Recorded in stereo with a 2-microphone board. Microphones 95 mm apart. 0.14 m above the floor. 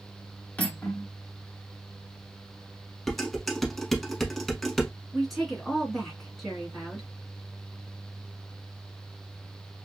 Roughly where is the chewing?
No chewing in this recording.